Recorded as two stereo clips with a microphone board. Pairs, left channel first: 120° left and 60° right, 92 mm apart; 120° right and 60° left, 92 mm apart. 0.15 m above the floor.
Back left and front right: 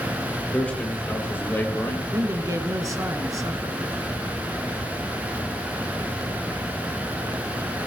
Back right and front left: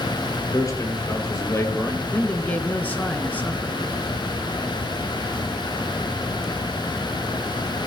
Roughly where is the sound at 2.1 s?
Ahead right.